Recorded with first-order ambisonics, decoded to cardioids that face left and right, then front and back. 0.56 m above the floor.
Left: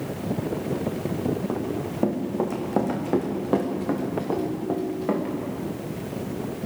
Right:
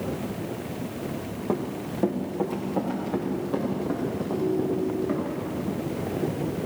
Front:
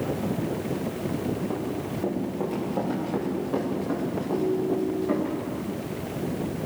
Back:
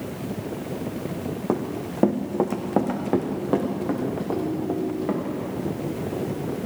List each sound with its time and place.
1.5 s running footsteps: 175° right, 2.5 m; by 5.3 s 115° left, 5 m
4.3 s a ringtone: 100° left, 2.5 m